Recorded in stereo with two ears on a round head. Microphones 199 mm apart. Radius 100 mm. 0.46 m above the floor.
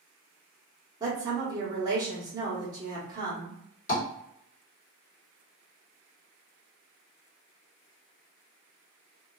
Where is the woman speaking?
20° right (ahead or behind), 1.0 m.